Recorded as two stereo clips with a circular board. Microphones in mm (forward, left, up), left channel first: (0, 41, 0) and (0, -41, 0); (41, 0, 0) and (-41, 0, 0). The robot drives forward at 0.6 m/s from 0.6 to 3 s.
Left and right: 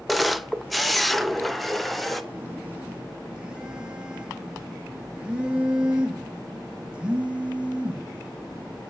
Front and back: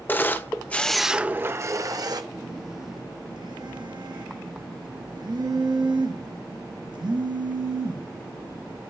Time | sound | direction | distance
0.1 | a camera shutter | straight ahead | 0.6 m
2.3 | a phone buzzing | 150° right | 0.5 m